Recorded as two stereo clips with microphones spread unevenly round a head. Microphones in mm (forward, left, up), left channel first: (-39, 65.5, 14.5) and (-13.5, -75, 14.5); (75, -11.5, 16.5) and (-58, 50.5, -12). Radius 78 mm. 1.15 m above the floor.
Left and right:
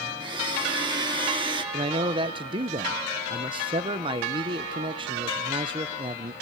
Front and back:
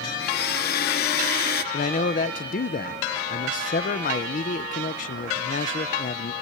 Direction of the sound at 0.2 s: 20° right.